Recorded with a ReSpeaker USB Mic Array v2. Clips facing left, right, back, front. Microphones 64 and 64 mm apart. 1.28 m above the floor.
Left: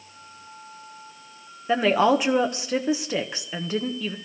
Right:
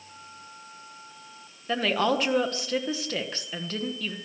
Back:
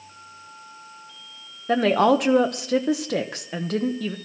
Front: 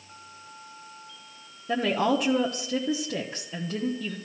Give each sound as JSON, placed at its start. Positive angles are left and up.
{"t": 1.7, "sound": "a woman speaking", "azimuth_deg": 160, "distance_m": 1.0}